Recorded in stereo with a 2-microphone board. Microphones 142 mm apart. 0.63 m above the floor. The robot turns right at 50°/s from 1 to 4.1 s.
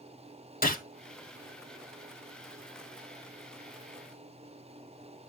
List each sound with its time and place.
0.6 s a gunshot: 90° left, 1.5 m